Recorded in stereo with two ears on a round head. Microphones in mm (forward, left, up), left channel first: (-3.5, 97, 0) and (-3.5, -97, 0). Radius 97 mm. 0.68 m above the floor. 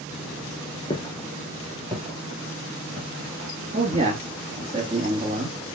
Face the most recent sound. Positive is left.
turn(degrees=-25)  # may be behind; listen again after turning